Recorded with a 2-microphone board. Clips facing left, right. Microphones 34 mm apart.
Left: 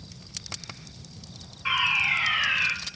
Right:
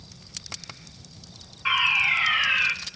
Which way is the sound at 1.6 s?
15° right (ahead or behind).